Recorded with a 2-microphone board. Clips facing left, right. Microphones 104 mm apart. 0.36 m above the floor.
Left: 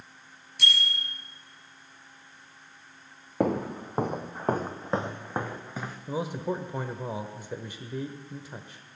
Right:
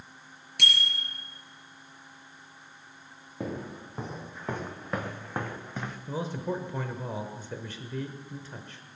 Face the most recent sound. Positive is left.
turn(degrees=15)  # may be behind; listen again after turning